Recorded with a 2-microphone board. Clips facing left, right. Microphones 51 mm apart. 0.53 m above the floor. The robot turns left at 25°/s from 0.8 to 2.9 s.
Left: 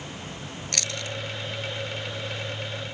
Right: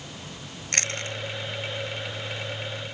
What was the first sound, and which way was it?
Chewing, 40° right (ahead or behind).